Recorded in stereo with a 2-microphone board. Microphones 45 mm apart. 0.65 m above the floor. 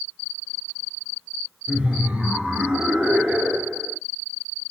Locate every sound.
1.7 s laughter: 25° right (ahead or behind), 2 m